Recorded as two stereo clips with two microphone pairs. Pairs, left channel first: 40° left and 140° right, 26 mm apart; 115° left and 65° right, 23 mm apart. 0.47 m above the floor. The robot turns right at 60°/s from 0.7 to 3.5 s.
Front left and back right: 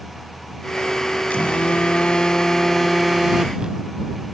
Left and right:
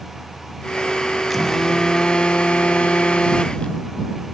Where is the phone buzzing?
30° left; by 3.9 s 160° left.